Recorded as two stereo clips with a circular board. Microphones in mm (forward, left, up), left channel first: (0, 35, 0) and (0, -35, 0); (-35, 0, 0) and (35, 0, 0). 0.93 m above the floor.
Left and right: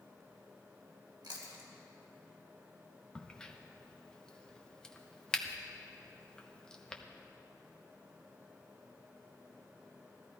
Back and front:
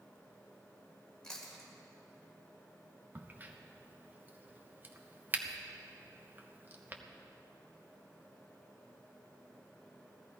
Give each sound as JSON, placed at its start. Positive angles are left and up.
{"t": 1.2, "sound": "chewing", "azimuth_deg": -100, "distance_m": 2.5}
{"t": 3.1, "sound": "a crack", "azimuth_deg": 25, "distance_m": 0.9}